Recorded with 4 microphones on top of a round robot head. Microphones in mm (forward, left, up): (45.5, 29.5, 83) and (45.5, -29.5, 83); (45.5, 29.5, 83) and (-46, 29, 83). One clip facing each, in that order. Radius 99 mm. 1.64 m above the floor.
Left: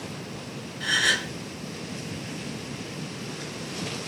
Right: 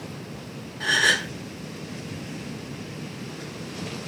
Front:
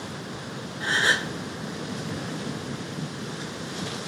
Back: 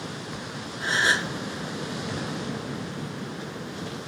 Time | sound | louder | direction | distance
0.8 | a gasp | right 3 dB, even | 45° right | 0.6 m